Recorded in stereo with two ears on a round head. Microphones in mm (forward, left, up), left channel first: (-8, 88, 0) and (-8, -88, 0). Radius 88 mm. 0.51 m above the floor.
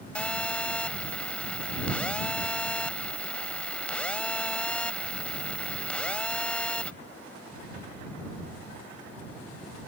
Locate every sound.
0.1 s a phone buzzing: 5° left (ahead or behind)